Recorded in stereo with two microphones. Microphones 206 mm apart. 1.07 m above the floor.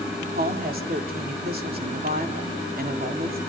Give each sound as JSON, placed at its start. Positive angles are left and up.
{"t": 0.3, "sound": "a woman speaking", "side_deg": -45, "distance_m": 3.5}